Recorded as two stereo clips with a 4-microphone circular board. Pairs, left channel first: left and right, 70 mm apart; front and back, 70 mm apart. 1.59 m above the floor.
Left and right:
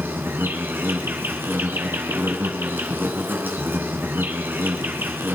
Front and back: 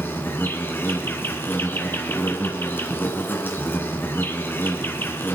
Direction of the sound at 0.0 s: 45° right.